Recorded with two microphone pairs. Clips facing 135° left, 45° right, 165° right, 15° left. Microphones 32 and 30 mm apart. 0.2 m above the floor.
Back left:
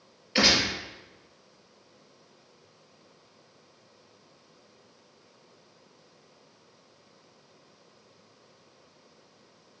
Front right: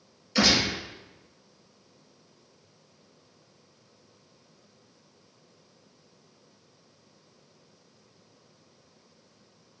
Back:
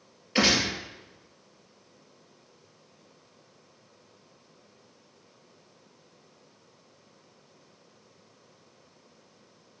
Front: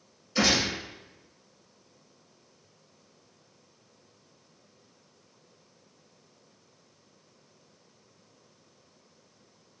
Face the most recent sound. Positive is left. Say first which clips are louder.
# even, back 1 dB
turn(degrees=-175)